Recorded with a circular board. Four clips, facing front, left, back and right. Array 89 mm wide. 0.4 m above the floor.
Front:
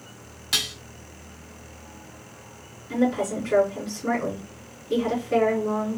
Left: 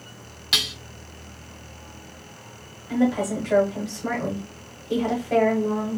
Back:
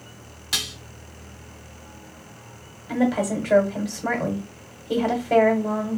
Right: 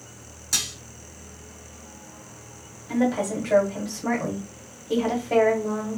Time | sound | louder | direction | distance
0.5 | dishes clattering | left 6 dB, front 1 dB | 85° left | 0.6 m
2.9 | a woman speaking | left 1 dB, back 1 dB | 165° right | 1.9 m